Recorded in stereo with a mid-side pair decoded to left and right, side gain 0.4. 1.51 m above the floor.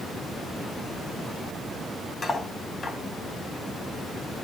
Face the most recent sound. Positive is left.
turn(degrees=35)